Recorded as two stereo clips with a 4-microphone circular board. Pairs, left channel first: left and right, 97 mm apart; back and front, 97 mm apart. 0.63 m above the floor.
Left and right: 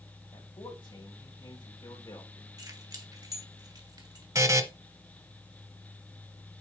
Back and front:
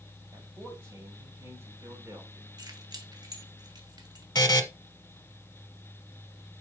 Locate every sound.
0.3 s a man speaking: 60° left, 4 m; by 2.5 s 50° left, 2 m
2.6 s keys jangling: 45° right, 1.5 m
4.3 s a buzzer: 140° right, 0.9 m